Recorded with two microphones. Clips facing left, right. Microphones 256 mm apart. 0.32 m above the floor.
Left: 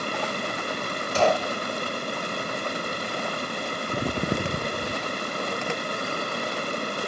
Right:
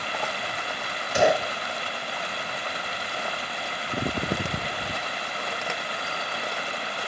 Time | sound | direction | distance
0.0 | running water | 50° left (ahead or behind) | ?
1.1 | a gunshot | 15° right (ahead or behind) | ?